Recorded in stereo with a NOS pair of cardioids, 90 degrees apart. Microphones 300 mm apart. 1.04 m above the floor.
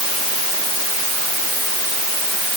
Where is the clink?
No clink in this recording.